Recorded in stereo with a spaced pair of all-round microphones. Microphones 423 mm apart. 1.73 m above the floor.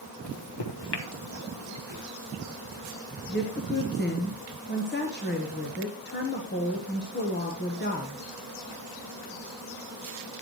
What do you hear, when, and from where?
0.2 s a microwave: 65° left (ahead or behind), 1.3 m
1.9 s a whoosh: 80° left, 5.5 m
3.3 s a woman speaking: 25° left (ahead or behind), 1.3 m